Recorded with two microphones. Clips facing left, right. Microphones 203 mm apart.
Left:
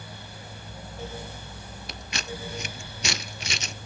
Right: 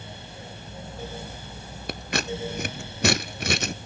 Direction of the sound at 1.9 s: 60° right (ahead or behind).